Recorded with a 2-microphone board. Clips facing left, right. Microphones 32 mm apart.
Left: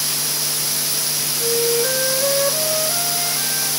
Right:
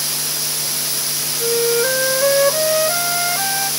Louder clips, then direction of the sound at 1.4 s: Right 3 dB; 40° right (ahead or behind).